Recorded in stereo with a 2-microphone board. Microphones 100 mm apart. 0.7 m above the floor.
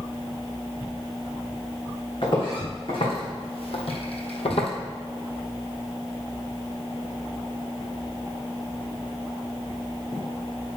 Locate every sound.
2.2 s footsteps: 55° left (ahead or behind), 3.5 m; by 4.7 s 65° left (ahead or behind), 1.4 m